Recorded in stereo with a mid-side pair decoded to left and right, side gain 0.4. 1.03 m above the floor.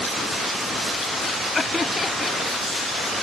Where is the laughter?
30° left.